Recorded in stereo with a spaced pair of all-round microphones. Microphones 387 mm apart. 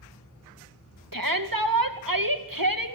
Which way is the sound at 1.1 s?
60° right (ahead or behind).